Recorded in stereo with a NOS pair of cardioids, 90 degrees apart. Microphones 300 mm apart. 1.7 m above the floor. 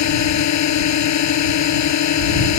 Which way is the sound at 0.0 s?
70° left.